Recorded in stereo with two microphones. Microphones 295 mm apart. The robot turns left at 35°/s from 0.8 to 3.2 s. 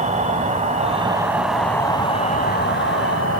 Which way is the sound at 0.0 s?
155° right.